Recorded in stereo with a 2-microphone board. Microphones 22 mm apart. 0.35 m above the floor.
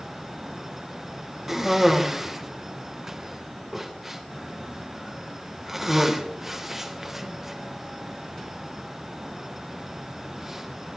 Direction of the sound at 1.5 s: 15° right (ahead or behind).